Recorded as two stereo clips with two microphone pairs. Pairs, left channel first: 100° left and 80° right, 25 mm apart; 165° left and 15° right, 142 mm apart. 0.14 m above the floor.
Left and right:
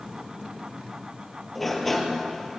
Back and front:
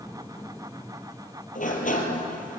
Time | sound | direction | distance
1.6 | a sliding door | 170° right | 2.5 m